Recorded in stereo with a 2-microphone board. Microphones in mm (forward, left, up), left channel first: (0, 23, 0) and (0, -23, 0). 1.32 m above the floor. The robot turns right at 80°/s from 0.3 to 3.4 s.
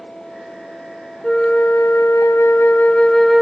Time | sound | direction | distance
1.2 | a flute | 15° left | 0.7 m